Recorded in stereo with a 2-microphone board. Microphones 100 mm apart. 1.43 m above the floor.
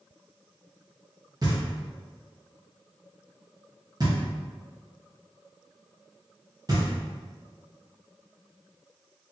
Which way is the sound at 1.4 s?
40° right (ahead or behind).